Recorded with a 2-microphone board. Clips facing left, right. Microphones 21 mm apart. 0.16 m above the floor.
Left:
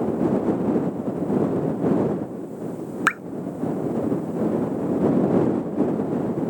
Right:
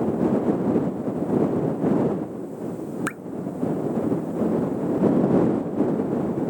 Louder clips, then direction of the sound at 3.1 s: Left 9 dB; 40° left (ahead or behind).